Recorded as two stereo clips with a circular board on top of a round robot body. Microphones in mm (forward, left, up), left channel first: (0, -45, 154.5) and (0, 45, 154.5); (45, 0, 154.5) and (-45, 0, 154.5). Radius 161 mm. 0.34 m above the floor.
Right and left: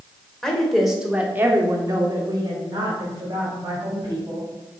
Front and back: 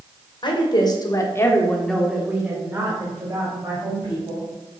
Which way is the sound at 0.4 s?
5° right.